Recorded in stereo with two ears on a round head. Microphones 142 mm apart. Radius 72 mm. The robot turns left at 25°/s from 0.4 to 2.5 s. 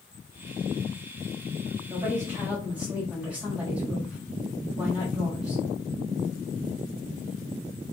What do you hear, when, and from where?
1.9 s a woman speaking: 25° right (ahead or behind), 1.5 m; by 5.6 s 10° right (ahead or behind), 1.5 m